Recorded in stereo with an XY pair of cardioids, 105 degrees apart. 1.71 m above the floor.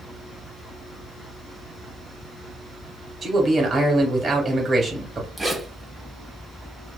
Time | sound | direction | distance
3.2 | a man speaking | 40° right | 1.4 m
5.4 | a zipper | 15° right | 1.0 m